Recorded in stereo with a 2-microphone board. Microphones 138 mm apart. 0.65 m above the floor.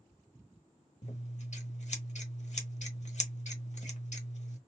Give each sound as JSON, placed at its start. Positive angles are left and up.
{"t": 1.0, "sound": "scissors", "side_deg": 55, "distance_m": 1.0}